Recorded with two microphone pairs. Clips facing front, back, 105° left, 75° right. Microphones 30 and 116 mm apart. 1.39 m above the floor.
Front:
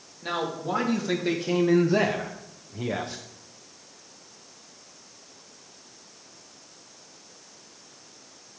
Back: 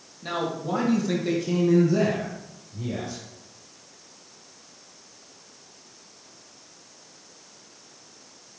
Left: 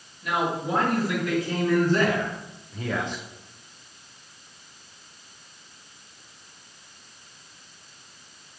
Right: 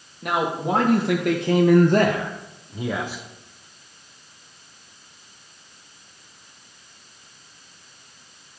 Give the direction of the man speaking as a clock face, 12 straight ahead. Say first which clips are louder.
Back 1 dB, right 3 dB; 3 o'clock.